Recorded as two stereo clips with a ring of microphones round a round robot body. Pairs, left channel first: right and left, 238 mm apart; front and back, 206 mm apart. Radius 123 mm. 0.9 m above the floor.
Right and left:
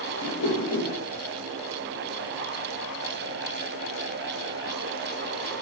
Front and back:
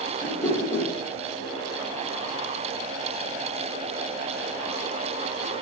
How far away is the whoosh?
About 1.0 m.